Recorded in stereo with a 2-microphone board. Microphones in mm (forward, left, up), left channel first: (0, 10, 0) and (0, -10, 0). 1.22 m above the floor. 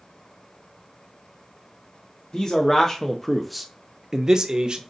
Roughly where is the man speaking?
Left.